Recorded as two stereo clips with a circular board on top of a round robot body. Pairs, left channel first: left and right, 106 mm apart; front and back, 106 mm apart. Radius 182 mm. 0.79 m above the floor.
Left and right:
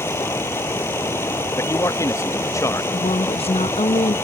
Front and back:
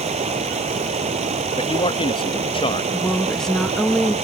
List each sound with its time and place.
0.0 s running water: 160° left
1.6 s a man speaking: 30° left
2.9 s a woman speaking: 85° left